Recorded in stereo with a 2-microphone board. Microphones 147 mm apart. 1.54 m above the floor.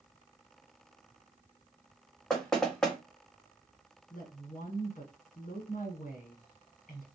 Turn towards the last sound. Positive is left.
turn(degrees=65)  # may be behind; listen again after turning